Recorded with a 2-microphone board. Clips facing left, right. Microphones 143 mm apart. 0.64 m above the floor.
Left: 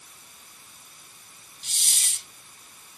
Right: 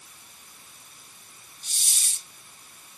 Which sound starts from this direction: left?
A hiss, at 1.6 s.